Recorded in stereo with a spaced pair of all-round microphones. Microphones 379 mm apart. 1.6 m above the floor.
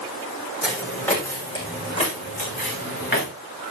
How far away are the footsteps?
About 3.5 m.